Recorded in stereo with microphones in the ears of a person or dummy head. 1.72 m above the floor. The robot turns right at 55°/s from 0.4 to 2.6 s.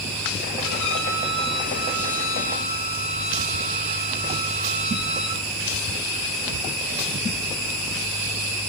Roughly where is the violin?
Ahead left.